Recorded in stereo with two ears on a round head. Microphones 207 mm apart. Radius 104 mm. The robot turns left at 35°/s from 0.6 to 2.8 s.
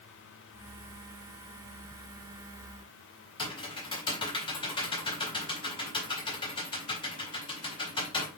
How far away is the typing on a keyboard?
About 4.5 m.